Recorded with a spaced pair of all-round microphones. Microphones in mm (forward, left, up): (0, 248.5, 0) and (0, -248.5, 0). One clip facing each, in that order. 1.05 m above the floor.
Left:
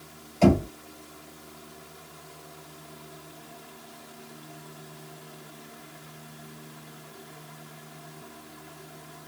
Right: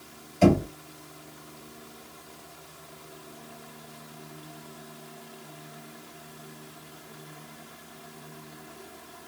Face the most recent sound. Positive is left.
turn(degrees=-35)  # may be behind; listen again after turning